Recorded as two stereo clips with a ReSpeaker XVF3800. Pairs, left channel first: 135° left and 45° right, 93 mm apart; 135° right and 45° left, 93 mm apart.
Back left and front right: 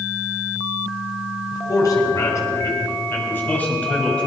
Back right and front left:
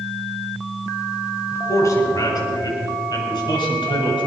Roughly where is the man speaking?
Behind.